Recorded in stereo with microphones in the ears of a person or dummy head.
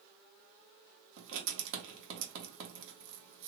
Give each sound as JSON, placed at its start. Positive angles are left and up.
{"t": 1.2, "sound": "writing", "side_deg": -70, "distance_m": 1.1}